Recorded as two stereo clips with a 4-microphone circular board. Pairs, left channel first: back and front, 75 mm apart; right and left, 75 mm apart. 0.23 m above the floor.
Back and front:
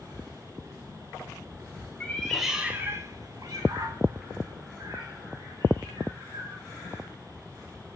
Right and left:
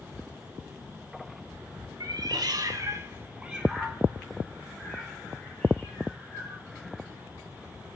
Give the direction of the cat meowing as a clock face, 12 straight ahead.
8 o'clock.